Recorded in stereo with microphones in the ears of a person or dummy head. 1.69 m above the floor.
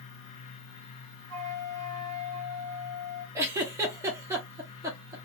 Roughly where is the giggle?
Centre.